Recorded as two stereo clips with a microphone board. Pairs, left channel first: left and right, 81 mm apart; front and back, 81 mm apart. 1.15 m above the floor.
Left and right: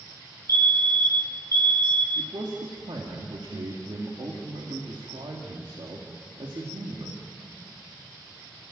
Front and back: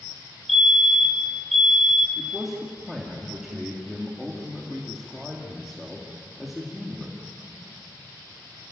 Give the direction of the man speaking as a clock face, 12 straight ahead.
3 o'clock.